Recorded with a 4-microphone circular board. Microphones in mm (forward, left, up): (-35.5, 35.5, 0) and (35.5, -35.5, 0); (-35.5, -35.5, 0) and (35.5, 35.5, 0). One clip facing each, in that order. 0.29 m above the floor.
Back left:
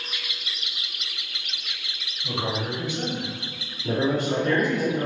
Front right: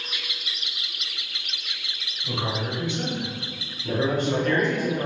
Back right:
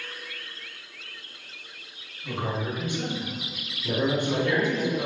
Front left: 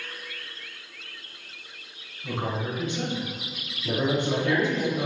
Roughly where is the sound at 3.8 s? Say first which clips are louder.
Even, even; left.